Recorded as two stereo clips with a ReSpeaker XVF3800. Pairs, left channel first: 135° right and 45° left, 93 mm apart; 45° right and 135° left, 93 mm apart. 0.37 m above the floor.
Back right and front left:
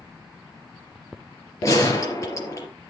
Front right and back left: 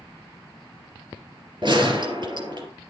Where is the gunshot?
170° left, 4 m.